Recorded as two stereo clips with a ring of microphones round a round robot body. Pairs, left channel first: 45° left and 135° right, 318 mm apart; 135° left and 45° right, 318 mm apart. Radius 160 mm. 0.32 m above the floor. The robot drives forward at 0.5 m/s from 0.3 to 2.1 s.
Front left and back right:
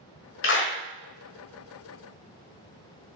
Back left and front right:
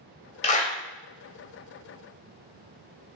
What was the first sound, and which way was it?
A clap, 75° left.